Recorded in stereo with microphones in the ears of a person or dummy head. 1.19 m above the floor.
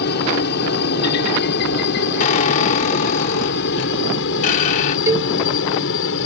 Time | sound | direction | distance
0.0 | a helicopter | 55° left (ahead or behind) | ?
2.2 | a squeak | 45° left (ahead or behind) | ?
5.1 | a cowbell | 20° right (ahead or behind) | ?